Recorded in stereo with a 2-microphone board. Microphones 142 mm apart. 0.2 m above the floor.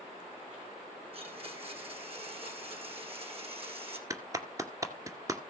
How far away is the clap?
About 2 m.